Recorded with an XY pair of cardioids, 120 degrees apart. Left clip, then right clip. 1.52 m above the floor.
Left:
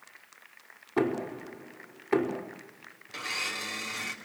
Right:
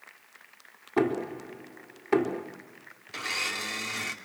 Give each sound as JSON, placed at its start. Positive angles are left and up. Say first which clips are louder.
{"t": 1.0, "sound": "knocking", "louder": "right 2 dB", "azimuth_deg": -15, "distance_m": 4.0}
{"t": 3.1, "sound": "a blender", "louder": "right 2 dB", "azimuth_deg": -20, "distance_m": 3.0}